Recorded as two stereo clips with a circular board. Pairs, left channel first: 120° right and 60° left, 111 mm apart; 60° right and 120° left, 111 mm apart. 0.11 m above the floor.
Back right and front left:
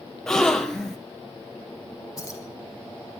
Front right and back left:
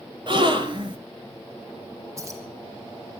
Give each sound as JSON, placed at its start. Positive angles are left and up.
{"t": 0.3, "sound": "a gasp", "azimuth_deg": 155, "distance_m": 1.6}
{"t": 2.2, "sound": "keys jangling", "azimuth_deg": 180, "distance_m": 4.5}